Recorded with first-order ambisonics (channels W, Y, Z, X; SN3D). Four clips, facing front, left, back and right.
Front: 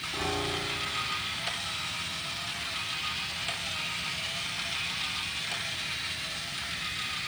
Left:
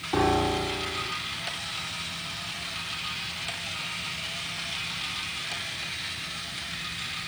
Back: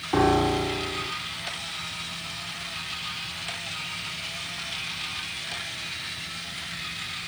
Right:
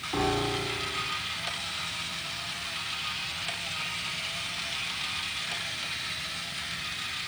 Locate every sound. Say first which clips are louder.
0.1 s a piano: left 4 dB, back 11 dB; 155° left, 0.8 m